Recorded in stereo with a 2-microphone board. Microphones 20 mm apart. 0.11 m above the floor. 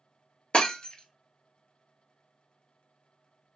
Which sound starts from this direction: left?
Breaking glass, at 0.5 s.